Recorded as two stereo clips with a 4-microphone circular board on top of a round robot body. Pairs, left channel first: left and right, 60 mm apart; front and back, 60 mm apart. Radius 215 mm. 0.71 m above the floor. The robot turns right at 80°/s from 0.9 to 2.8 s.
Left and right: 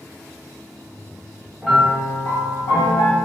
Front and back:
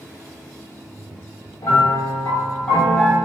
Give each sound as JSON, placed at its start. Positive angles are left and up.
{"t": 1.6, "sound": "a piano", "azimuth_deg": -10, "distance_m": 0.8}